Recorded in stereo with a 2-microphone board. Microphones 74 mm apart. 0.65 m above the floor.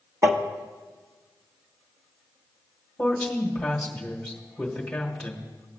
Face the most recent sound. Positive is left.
turn(degrees=5)  # may be behind; listen again after turning